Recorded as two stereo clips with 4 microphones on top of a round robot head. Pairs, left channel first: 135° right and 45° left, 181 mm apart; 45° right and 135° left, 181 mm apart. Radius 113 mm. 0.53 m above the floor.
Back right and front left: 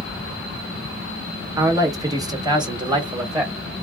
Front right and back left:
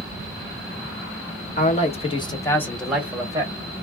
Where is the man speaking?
25° right, 1.3 m; by 3.5 s 95° left, 1.1 m.